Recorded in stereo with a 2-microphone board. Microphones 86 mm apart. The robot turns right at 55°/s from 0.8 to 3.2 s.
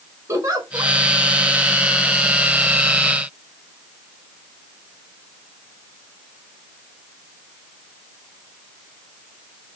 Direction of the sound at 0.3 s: 35° right (ahead or behind).